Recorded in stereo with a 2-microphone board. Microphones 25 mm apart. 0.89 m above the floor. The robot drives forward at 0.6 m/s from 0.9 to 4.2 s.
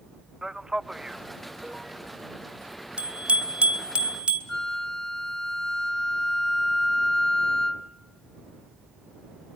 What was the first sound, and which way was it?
A man speaking, 25° right (ahead or behind).